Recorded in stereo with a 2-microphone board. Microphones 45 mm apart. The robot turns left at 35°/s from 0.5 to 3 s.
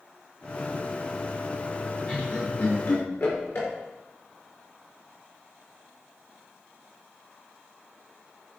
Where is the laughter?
30° left (ahead or behind), 4.5 m; by 3.7 s 55° left (ahead or behind), 4.5 m.